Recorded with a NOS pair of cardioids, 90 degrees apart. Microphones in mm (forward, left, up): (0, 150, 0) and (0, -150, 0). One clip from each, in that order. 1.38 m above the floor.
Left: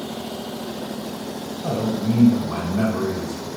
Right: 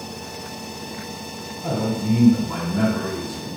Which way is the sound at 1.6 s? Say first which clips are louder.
Even; 5° right.